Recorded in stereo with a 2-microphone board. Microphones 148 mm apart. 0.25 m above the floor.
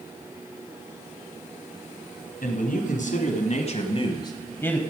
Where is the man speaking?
65° left (ahead or behind), 2.5 m; by 4.8 s 10° left (ahead or behind), 1.2 m.